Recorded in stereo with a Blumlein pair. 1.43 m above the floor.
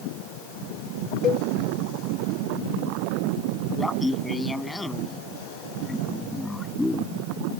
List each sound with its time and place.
1.2 s a cowbell: 30° left
3.8 s laughter: 5° left